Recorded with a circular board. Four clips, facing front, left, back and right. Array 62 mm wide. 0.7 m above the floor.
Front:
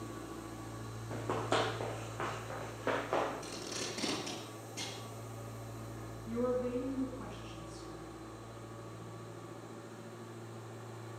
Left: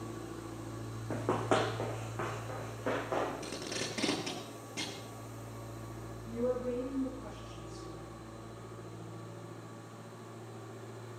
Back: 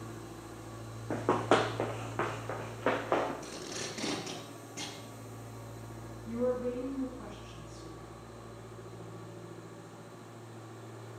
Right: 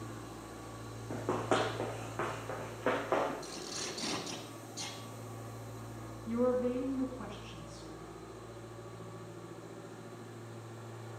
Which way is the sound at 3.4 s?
105° left.